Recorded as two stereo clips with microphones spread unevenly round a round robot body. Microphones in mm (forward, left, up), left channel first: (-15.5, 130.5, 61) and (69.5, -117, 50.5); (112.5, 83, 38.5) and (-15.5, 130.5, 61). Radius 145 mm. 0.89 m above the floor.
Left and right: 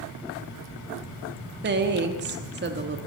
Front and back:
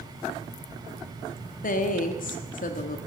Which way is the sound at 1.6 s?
20° right.